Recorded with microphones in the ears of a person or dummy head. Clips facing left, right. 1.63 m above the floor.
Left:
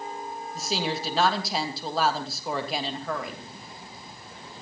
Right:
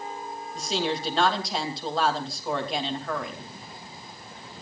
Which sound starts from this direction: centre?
A woman speaking, at 0.6 s.